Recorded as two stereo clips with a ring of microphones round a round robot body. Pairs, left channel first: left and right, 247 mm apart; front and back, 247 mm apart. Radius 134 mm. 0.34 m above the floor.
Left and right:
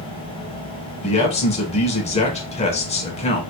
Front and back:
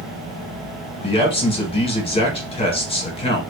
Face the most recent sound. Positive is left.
turn(degrees=50)